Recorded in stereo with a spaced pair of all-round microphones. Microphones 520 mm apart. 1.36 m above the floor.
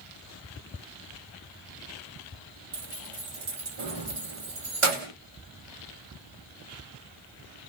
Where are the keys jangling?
65° right (ahead or behind), 1.0 m.